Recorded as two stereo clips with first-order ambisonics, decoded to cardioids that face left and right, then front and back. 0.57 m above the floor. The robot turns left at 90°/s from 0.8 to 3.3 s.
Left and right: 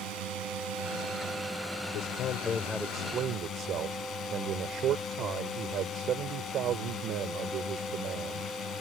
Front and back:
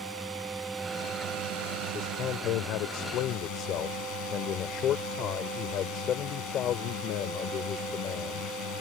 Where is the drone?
100° right; by 8.8 s 35° left.